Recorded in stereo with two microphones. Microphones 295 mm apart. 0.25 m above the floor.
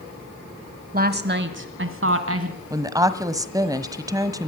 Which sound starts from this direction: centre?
A woman speaking, at 2.7 s.